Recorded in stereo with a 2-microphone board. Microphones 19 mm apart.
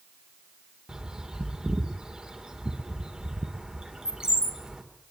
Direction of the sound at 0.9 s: 55° right (ahead or behind).